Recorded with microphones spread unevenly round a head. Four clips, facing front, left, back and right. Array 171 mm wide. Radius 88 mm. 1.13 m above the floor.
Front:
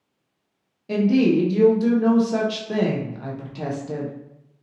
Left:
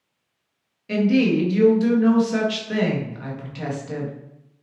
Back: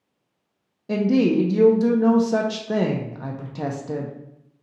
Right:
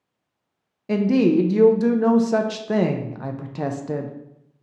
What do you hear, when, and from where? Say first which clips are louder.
0.9 s a woman speaking: right 1 dB, front 1 dB; 120° right, 0.6 m